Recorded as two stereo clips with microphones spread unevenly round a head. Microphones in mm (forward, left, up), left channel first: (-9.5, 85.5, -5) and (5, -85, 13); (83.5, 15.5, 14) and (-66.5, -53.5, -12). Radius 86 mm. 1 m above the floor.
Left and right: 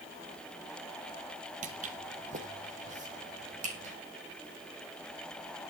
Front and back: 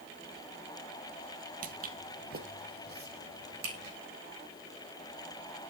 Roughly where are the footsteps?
Behind right.